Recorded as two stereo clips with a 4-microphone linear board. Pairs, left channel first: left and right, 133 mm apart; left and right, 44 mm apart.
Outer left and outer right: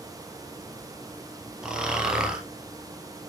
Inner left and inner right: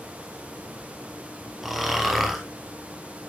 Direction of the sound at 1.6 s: 5° right (ahead or behind).